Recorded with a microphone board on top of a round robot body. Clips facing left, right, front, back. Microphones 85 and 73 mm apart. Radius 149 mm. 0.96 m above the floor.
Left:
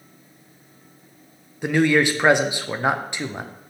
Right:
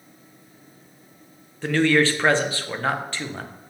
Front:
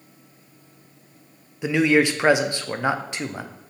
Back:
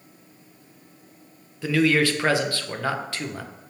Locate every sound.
1.6 s a man speaking: 40° left, 0.5 m